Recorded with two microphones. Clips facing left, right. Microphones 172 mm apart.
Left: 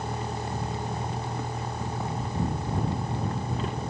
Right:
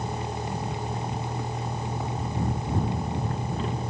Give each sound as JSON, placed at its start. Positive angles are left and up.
{"t": 0.0, "sound": "a vehicle", "side_deg": -5}